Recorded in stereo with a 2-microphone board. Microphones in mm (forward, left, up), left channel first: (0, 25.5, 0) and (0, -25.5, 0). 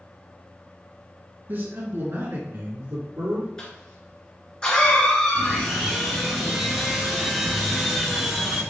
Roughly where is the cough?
Centre.